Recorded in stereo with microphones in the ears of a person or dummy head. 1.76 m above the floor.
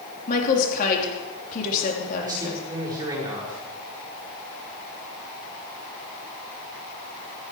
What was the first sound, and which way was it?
A woman speaking, 50° left (ahead or behind).